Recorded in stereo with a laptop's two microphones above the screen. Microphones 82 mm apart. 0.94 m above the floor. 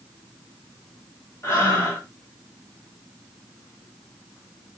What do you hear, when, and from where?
1.4 s breathing: 40° left (ahead or behind), 1.6 m